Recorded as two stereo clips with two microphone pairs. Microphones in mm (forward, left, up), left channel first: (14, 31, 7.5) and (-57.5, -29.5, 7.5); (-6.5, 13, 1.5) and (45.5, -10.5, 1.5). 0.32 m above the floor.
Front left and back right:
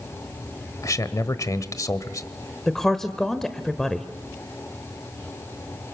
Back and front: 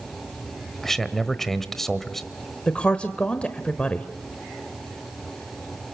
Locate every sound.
0.8 s a man speaking: 70° left, 1.1 m
2.7 s a woman speaking: 125° left, 1.0 m